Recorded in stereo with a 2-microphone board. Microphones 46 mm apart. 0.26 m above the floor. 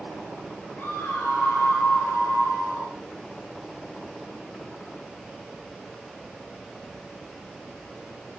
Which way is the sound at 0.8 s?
55° left (ahead or behind).